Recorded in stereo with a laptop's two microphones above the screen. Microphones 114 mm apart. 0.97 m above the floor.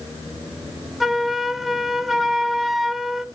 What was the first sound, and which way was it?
A flute, centre (ahead or behind).